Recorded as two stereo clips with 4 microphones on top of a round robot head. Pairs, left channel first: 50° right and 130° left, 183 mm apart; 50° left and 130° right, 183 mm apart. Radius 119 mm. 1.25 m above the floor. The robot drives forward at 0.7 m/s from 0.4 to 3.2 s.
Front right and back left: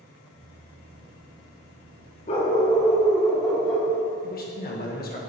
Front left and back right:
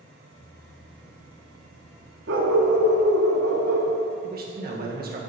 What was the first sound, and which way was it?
A dog barking, 105° right.